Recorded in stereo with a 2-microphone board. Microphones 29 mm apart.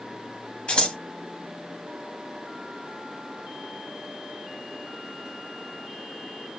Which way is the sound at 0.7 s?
35° left (ahead or behind).